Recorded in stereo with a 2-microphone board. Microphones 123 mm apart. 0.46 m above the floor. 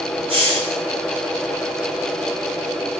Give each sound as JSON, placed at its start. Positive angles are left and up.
{"t": 0.3, "sound": "a hiss", "side_deg": -50, "distance_m": 1.6}